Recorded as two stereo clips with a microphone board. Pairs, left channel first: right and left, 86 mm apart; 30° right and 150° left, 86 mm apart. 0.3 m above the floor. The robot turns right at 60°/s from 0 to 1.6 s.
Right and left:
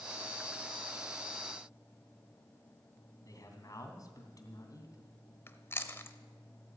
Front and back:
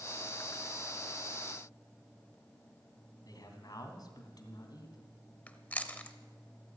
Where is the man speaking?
55° right, 2.5 m.